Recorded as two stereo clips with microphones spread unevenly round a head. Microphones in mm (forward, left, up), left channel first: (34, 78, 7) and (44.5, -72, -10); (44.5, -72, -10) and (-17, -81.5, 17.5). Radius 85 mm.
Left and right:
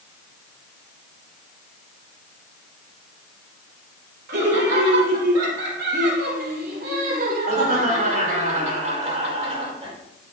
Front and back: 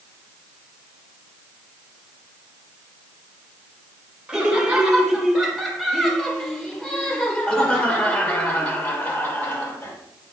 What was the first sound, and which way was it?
Laughter, 90° right.